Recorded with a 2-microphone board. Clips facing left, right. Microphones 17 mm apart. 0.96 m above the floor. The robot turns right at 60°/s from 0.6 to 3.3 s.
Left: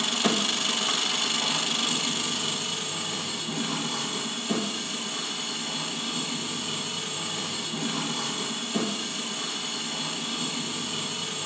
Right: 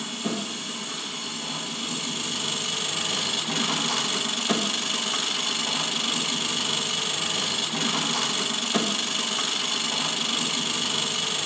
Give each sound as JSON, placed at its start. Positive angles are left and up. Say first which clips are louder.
{"t": 0.0, "sound": "an engine running", "louder": "left 5 dB", "azimuth_deg": 75, "distance_m": 1.0}